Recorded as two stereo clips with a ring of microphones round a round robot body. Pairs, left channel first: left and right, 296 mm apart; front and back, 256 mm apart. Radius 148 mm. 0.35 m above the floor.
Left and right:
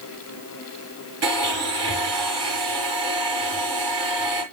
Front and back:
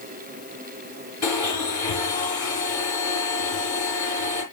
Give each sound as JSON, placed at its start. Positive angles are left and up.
{"t": 1.2, "sound": "a blender", "azimuth_deg": -80, "distance_m": 7.5}